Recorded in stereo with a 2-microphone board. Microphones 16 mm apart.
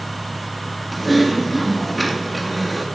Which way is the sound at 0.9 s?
5° left (ahead or behind).